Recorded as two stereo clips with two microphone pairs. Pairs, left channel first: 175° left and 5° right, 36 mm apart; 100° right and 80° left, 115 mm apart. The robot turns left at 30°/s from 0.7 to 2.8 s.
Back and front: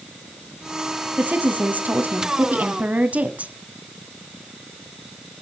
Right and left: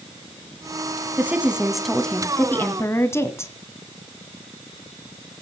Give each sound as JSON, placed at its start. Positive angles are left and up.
{"t": 1.2, "sound": "a woman speaking", "azimuth_deg": 5, "distance_m": 1.7}